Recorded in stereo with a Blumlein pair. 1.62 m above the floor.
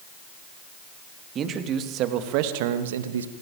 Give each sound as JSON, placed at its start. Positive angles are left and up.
{"t": 1.4, "sound": "a man speaking", "azimuth_deg": -25, "distance_m": 3.5}